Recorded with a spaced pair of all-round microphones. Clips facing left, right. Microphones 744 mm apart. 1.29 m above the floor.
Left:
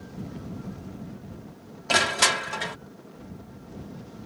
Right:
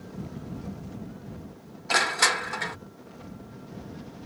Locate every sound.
1.9 s crushing: 55° left (ahead or behind)